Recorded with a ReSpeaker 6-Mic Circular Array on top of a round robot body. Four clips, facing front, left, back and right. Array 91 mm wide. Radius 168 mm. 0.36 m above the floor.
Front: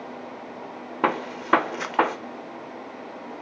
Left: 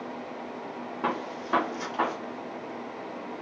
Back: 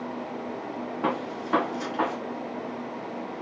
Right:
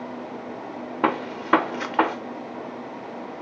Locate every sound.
1.0 s a gunshot: 45° right, 0.7 m